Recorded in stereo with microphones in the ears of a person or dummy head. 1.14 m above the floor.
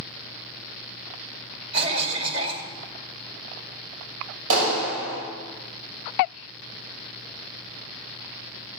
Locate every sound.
1.7 s a cough: 30° right (ahead or behind), 2.5 m
4.5 s a clap: 85° right, 5.5 m